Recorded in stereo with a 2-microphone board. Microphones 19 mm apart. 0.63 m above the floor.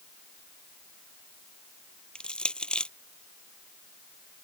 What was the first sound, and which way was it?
Crushing, 75° left (ahead or behind).